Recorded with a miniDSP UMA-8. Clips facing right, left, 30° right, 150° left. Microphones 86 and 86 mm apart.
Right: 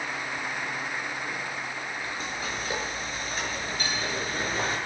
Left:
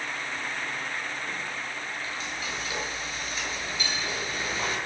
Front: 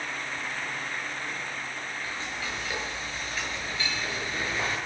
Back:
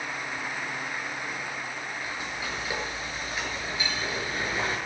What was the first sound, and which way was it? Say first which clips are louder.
Frying: right 1 dB, back 1 dB; 135° right.